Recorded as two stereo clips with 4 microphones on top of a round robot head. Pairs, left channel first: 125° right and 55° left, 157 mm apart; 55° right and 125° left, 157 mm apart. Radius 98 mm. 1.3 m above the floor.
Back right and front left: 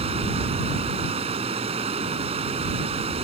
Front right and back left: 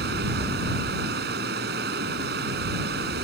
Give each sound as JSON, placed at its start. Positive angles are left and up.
{"t": 0.0, "sound": "running water", "azimuth_deg": 105}